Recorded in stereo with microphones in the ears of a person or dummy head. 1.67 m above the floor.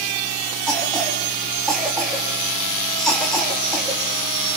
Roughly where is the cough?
Centre.